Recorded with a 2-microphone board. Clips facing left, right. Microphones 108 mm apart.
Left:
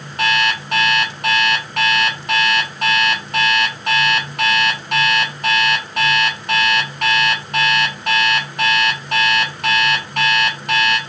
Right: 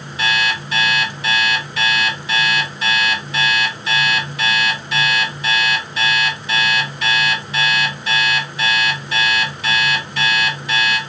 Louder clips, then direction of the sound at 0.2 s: Left 2 dB; 55° left (ahead or behind).